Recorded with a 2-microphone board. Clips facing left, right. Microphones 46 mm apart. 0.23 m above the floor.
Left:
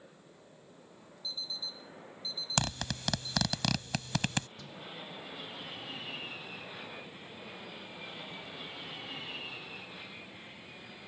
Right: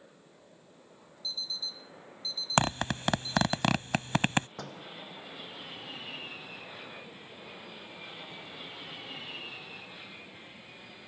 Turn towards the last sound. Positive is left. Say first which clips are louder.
# right 4 dB
turn(degrees=-60)  # may be behind; listen again after turning